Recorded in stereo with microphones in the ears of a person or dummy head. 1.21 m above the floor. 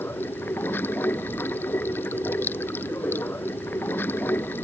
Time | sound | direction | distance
0.0 | running water | 10° left (ahead or behind) | ?